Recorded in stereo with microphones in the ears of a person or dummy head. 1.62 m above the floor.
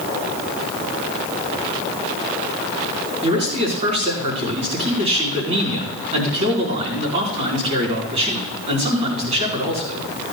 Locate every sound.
3.2 s a man speaking: 35° right (ahead or behind), 4.5 m